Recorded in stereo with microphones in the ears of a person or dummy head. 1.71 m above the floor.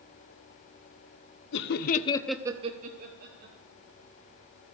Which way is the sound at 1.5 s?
65° left (ahead or behind).